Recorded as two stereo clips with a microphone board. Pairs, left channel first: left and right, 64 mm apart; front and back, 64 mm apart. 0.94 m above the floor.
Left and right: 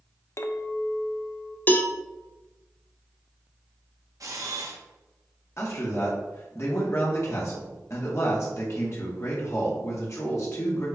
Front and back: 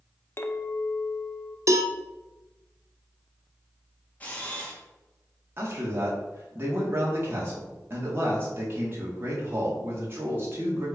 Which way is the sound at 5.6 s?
130° left.